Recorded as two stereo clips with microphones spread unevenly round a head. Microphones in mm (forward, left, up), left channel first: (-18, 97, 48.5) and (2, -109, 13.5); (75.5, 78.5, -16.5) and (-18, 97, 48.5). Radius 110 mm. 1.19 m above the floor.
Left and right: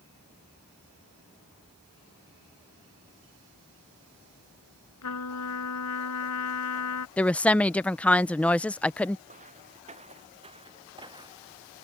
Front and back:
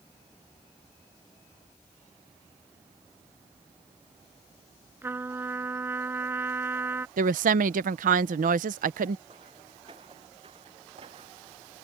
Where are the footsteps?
145° right; by 11.6 s 160° right.